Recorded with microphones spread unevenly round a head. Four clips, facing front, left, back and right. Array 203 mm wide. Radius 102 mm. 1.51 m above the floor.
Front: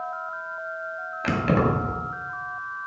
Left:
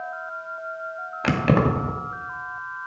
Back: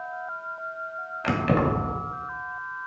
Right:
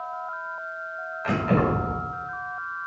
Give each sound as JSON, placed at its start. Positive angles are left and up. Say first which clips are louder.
{"t": 1.2, "sound": "keys jangling", "louder": "left 2 dB, front 1 dB", "azimuth_deg": 90, "distance_m": 2.5}